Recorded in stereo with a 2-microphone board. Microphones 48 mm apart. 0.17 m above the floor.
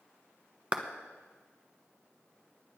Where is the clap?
25° right (ahead or behind), 1.0 m.